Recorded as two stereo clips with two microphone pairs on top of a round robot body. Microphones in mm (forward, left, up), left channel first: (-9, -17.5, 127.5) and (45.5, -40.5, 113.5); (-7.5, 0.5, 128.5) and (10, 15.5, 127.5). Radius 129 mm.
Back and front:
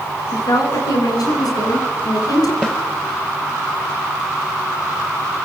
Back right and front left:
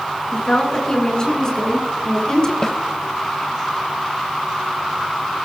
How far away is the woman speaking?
About 6 m.